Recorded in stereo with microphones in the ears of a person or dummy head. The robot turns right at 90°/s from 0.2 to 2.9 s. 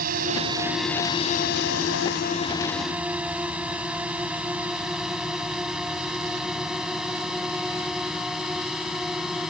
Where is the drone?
55° right (ahead or behind); by 9.5 s centre (ahead or behind).